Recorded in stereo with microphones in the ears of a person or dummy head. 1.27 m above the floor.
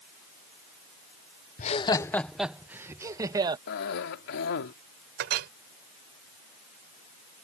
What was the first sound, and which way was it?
Laughter, 35° left (ahead or behind).